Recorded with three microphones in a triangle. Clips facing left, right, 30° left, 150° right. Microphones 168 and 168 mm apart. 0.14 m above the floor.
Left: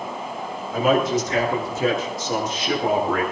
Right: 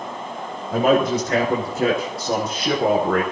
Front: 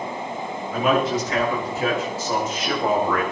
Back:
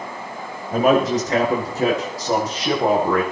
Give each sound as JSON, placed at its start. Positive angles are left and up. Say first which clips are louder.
{"t": 0.7, "sound": "a man speaking", "louder": "right 2 dB, back 4 dB", "azimuth_deg": -110, "distance_m": 8.0}